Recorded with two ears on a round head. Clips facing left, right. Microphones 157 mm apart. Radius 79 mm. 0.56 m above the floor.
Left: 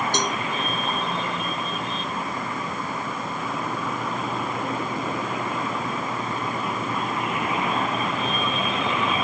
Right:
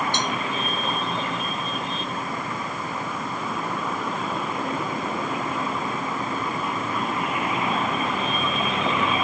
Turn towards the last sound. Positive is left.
turn(degrees=40)  # may be behind; listen again after turning